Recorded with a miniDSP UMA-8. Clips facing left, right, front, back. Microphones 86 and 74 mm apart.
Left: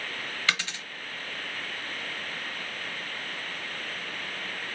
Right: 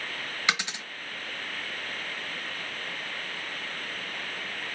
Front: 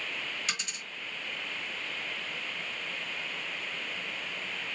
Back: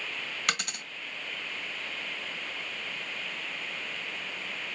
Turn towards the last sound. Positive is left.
turn(degrees=-160)